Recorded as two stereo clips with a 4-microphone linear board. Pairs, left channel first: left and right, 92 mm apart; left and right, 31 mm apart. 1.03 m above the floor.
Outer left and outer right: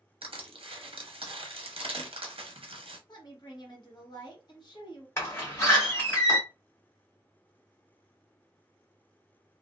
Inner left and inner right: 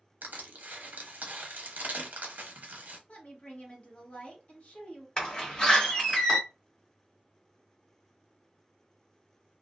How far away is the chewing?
I don't hear chewing.